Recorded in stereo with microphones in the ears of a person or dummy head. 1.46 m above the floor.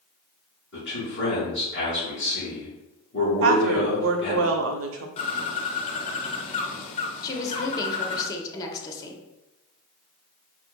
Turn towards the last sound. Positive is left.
turn(degrees=20)  # may be behind; listen again after turning